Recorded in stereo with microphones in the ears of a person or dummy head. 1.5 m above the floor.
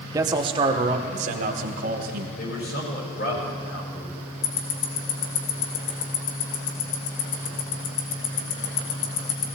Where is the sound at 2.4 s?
50° left (ahead or behind), 5.5 m.